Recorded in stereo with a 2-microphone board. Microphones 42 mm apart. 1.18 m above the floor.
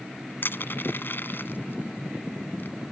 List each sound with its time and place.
0.4 s crushing: 60° left (ahead or behind)